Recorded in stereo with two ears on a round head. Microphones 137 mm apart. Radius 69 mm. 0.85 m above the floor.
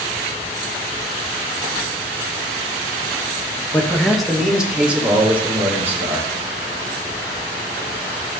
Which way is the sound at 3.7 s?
10° left (ahead or behind).